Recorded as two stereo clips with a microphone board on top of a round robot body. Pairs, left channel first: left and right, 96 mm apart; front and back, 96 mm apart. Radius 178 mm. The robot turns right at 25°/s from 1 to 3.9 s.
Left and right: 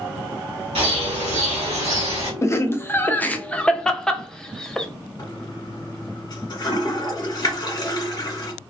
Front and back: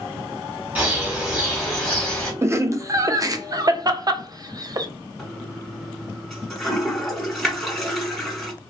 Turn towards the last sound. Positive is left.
turn(degrees=85)